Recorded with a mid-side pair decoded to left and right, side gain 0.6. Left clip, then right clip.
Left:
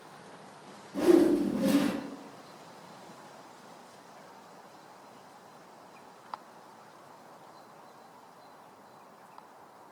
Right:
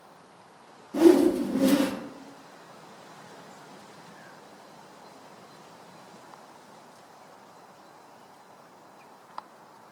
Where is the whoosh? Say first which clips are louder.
Right 4 dB; 65° right, 0.6 m.